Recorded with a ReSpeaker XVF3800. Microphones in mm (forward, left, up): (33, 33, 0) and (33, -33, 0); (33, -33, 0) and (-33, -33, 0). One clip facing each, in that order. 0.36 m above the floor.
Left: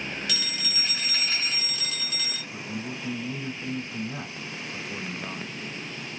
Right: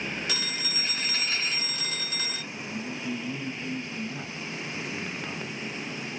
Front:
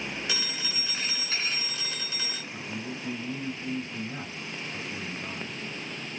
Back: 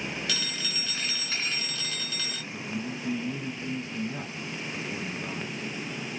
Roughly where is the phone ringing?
Ahead right.